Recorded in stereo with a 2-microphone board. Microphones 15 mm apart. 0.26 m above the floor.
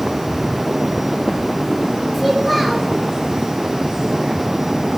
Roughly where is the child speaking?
Centre.